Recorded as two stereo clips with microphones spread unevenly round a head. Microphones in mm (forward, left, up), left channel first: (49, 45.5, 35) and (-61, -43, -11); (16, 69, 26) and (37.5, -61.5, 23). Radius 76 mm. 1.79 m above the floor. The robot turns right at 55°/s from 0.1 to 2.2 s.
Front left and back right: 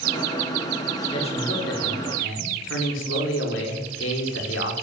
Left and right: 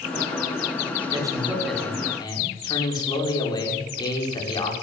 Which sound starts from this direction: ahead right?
A man speaking, at 1.1 s.